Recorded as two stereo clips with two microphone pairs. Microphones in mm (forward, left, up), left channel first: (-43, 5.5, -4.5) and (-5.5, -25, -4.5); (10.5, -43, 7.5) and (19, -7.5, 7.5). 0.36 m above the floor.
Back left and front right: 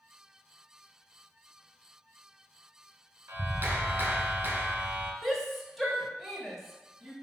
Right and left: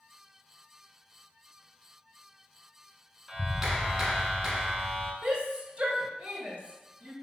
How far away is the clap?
About 1.4 m.